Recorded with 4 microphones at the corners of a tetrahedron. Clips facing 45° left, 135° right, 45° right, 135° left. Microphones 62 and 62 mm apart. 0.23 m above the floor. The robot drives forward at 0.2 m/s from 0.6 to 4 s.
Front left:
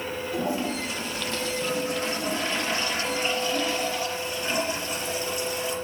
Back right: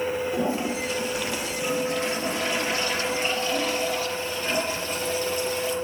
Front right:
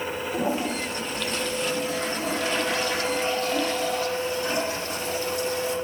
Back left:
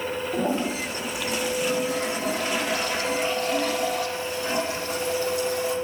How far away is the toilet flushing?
About 4.5 m.